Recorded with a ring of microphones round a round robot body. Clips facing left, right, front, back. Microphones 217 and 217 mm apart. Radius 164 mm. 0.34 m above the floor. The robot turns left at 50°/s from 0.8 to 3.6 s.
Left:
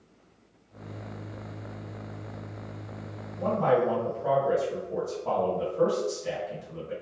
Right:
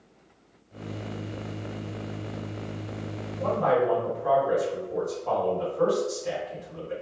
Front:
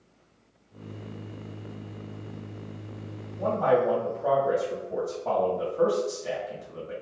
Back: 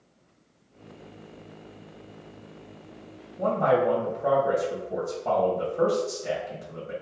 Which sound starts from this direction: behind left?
A man speaking, at 3.4 s.